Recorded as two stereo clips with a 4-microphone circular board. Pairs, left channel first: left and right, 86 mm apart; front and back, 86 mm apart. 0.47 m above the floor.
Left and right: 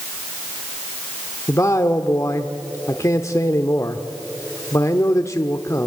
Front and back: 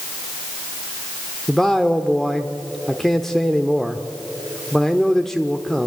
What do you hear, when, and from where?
1.5 s a man speaking: 85° left, 1.0 m